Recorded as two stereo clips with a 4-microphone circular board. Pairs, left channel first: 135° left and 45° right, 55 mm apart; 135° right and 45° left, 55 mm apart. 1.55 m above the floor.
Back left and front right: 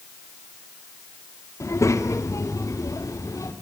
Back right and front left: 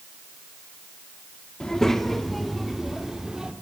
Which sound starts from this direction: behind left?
A child speaking, at 1.6 s.